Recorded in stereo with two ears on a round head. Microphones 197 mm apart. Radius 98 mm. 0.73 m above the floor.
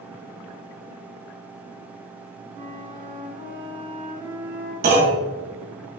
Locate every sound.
2.5 s a flute: 35° right (ahead or behind), 1.6 m
4.8 s a clunk: 45° right (ahead or behind), 2.5 m